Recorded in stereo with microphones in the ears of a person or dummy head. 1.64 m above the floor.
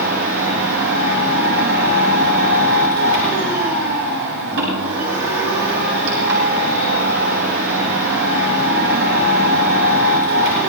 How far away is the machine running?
About 8 m.